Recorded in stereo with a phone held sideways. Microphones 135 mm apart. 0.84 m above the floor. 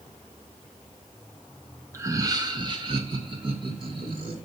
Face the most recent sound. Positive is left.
turn(degrees=-40)  # may be behind; listen again after turning